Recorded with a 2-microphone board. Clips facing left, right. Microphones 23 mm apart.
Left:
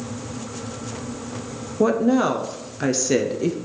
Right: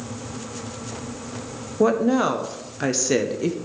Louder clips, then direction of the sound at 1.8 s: Left 1 dB; 5° right (ahead or behind).